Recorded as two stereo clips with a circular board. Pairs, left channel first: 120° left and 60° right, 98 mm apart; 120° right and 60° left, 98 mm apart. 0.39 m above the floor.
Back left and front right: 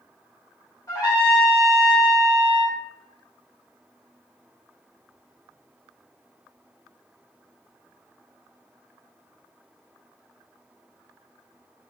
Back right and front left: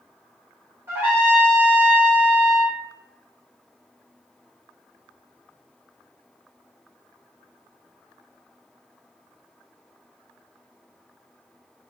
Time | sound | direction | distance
0.9 | a trumpet | 100° left | 1.1 m